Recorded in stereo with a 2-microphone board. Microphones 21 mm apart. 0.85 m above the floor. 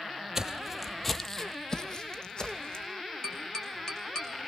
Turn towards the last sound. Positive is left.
turn(degrees=30)  # may be behind; listen again after turning